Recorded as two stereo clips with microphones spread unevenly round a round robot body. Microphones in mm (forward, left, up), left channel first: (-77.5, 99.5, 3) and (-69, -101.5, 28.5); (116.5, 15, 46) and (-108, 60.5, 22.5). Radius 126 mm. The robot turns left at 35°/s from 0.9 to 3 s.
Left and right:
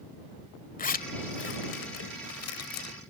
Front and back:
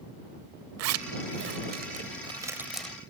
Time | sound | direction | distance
0.8 | a zipper | 145° left | ?